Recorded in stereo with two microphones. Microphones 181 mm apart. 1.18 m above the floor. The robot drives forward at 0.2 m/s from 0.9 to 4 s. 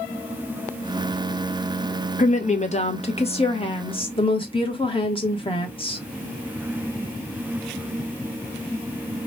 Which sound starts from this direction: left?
A woman speaking, at 2.2 s.